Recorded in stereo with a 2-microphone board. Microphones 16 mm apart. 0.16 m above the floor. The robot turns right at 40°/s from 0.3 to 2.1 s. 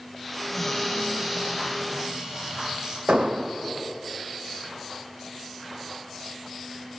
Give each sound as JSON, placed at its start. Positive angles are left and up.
{"t": 0.5, "sound": "a cupboard door", "azimuth_deg": 165, "distance_m": 9.5}
{"t": 3.1, "sound": "an explosion", "side_deg": -70, "distance_m": 1.6}